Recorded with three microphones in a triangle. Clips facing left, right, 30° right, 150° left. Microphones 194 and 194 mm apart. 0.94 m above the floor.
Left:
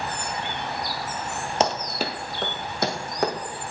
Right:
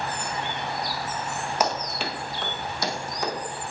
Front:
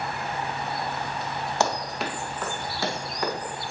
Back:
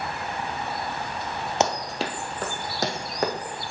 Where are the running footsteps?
110° left, 1.0 m.